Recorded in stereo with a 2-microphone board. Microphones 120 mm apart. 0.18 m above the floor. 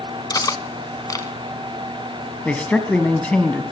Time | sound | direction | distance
0.3 | cutlery clinking | 30° left (ahead or behind) | 1.0 m
2.5 | a man speaking | 10° left (ahead or behind) | 1.5 m